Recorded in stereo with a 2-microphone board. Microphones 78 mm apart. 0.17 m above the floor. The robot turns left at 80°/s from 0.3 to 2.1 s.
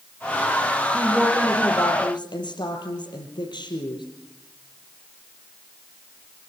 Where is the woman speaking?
170° right, 5.5 m; by 4.0 s 100° left, 5.5 m.